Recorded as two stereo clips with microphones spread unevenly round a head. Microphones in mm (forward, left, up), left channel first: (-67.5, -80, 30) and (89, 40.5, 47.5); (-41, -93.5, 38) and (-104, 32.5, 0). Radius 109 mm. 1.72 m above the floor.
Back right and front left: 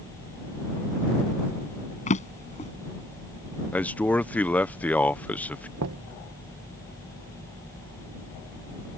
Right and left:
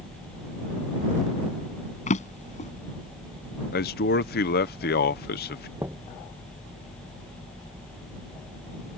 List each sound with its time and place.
2.1 s a drawer: 85° right
3.7 s a man speaking: 60° right
5.8 s knocking: 35° left